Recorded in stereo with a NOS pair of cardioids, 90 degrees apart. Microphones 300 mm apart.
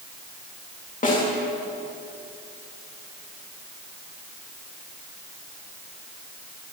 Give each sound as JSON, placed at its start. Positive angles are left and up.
{"t": 1.0, "sound": "a snare drum", "azimuth_deg": 25, "distance_m": 3.5}